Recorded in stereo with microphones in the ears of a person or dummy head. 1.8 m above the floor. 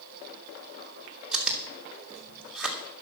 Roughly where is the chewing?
Centre.